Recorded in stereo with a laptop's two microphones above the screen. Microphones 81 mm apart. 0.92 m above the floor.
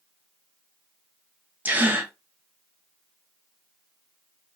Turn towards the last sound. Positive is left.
turn(degrees=-20)  # may be behind; listen again after turning